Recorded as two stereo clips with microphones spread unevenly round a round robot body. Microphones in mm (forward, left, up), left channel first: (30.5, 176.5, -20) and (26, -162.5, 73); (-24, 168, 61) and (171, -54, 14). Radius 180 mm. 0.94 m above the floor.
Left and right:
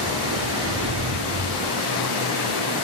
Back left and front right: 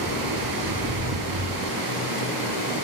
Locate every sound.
0.0 s running water: 45° right, 5 m